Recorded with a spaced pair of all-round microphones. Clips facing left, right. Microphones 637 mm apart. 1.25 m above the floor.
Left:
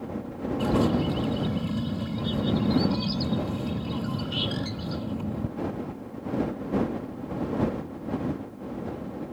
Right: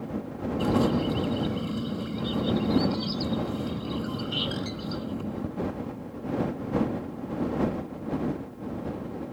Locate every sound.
0.6 s a bird: 20° left (ahead or behind)